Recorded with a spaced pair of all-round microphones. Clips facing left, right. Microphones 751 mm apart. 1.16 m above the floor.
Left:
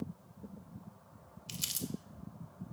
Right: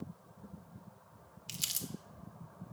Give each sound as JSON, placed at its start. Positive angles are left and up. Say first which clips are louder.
{"t": 1.5, "sound": "crumpling", "louder": "left 5 dB", "side_deg": -10, "distance_m": 0.5}